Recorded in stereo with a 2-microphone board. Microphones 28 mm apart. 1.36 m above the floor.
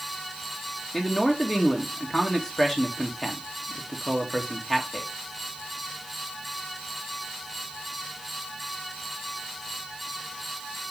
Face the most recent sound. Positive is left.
turn(degrees=20)  # may be behind; listen again after turning